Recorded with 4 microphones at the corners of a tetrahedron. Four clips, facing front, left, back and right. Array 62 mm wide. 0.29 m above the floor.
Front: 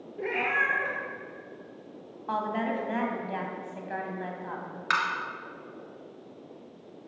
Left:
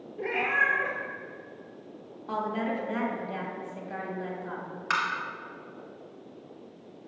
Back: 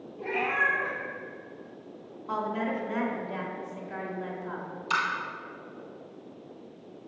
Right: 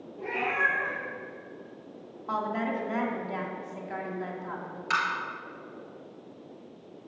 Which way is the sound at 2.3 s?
25° right.